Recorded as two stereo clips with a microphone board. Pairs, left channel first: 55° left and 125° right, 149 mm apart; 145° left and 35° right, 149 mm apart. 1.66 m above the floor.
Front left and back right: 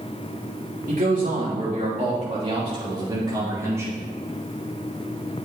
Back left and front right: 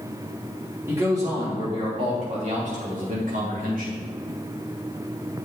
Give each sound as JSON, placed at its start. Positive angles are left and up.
{"t": 0.9, "sound": "a man speaking", "azimuth_deg": -105, "distance_m": 3.0}